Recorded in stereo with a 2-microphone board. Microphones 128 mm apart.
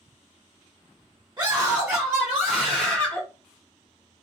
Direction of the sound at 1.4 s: 35° right (ahead or behind).